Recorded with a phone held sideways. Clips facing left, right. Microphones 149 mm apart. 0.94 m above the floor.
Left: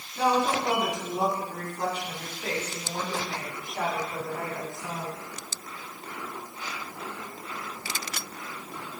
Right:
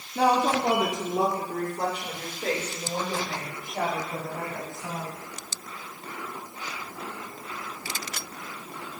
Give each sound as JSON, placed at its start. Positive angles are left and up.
{"t": 0.1, "sound": "a woman speaking", "side_deg": -65, "distance_m": 2.5}